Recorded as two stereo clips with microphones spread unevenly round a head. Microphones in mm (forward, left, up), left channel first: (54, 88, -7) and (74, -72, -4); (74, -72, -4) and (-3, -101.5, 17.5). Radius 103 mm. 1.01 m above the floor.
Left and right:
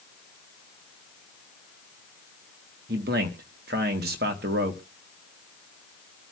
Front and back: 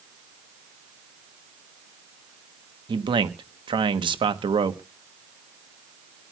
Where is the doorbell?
No doorbell in this recording.